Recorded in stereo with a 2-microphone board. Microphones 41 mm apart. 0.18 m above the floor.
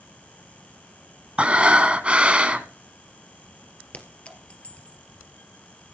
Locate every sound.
1.4 s breathing: 30° right (ahead or behind), 1.7 m
3.9 s a clink: 30° left (ahead or behind), 2.5 m